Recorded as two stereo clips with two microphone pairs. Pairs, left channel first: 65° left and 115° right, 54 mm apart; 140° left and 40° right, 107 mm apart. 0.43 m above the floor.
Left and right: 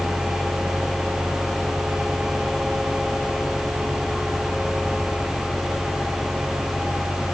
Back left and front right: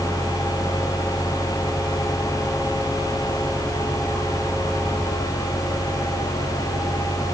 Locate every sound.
Only background noise.